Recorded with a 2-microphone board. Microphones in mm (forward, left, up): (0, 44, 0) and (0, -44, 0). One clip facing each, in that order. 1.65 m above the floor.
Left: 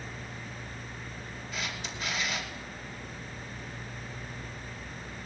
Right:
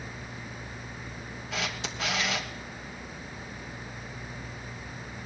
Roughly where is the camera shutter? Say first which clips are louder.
Right 4 dB; right.